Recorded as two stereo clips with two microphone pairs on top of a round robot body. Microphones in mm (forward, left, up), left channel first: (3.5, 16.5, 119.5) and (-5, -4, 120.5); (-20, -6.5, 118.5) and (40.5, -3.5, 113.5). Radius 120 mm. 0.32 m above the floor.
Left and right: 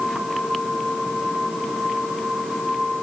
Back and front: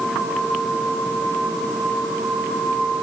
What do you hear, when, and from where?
Only background noise.